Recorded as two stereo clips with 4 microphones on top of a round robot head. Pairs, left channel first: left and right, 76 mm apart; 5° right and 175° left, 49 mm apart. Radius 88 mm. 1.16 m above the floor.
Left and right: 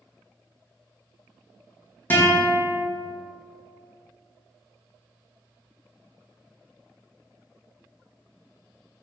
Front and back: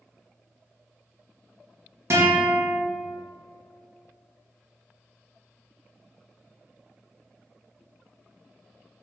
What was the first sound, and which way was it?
A guitar, 155° left.